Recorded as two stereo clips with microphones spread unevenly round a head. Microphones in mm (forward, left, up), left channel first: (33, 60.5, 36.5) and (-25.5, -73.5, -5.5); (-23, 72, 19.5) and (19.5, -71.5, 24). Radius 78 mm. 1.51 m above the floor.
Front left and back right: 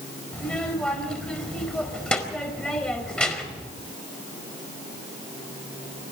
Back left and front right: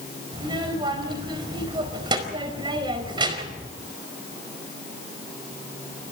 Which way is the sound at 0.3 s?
15° right.